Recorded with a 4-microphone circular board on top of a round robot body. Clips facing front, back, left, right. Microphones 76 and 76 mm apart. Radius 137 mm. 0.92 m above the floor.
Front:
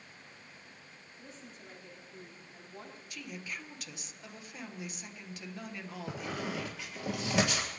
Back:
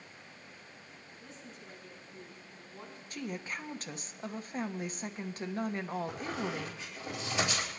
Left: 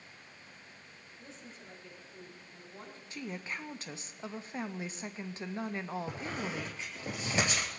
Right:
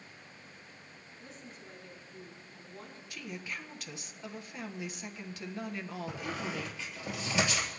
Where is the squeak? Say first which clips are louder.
Back 1 dB, even; 30° left, 1.7 m.